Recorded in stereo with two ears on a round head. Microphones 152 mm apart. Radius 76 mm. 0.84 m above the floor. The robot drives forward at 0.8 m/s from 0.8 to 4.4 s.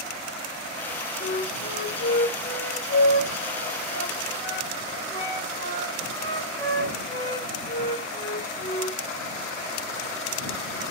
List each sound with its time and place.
1.2 s a flute: 60° left (ahead or behind), 2 m; by 9.0 s 25° left (ahead or behind), 4 m